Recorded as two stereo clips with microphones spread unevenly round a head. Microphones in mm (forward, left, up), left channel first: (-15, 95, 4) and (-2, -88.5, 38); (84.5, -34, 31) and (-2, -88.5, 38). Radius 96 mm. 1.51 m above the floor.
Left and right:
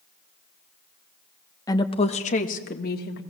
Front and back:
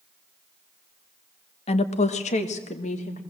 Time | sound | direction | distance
1.7 | a woman speaking | 15° left | 1.2 m